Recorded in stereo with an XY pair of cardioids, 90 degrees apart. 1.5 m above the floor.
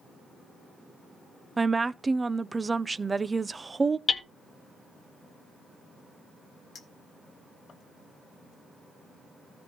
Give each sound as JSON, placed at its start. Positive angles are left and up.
{"t": 1.6, "sound": "a woman speaking", "azimuth_deg": -25, "distance_m": 0.6}
{"t": 4.1, "sound": "hammering", "azimuth_deg": 45, "distance_m": 1.4}
{"t": 6.8, "sound": "a clink", "azimuth_deg": 60, "distance_m": 2.5}